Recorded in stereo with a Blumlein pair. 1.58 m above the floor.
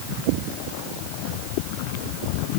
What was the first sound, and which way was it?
Only background noise.